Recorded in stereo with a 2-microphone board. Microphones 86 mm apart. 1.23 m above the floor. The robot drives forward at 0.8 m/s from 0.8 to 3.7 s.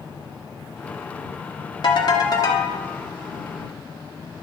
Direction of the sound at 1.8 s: 55° left (ahead or behind).